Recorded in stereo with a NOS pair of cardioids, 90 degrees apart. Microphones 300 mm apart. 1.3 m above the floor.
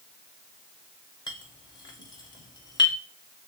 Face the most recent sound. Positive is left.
turn(degrees=15)